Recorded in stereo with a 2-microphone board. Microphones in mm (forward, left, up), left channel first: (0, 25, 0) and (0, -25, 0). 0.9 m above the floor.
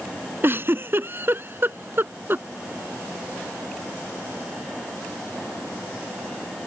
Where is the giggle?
50° right (ahead or behind).